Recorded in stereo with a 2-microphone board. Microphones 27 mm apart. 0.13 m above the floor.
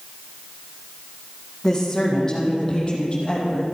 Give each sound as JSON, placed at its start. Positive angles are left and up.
{"t": 1.6, "sound": "a woman speaking", "side_deg": 15, "distance_m": 5.5}